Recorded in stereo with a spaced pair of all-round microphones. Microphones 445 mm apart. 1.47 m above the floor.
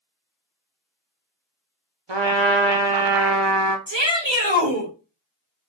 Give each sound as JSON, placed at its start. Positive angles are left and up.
{"t": 2.1, "sound": "a trumpet", "side_deg": -75, "distance_m": 0.7}
{"t": 3.9, "sound": "a shout", "side_deg": -75, "distance_m": 2.0}